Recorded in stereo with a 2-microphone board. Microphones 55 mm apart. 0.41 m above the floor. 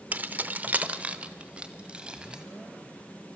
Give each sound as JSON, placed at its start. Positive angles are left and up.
{"t": 0.1, "sound": "keys jangling", "side_deg": -30, "distance_m": 0.6}